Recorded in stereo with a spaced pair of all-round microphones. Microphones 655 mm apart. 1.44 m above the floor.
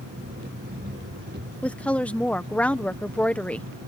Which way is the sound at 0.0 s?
15° right (ahead or behind).